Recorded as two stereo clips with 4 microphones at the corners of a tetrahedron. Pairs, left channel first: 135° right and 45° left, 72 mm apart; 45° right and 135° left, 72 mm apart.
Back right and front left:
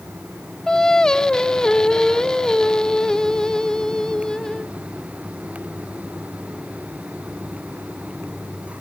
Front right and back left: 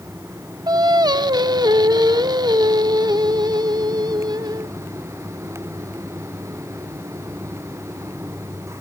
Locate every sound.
0.7 s singing: 145° left, 0.7 m